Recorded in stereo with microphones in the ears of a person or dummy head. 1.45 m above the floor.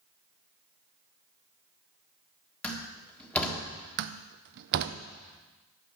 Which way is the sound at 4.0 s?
60° right (ahead or behind).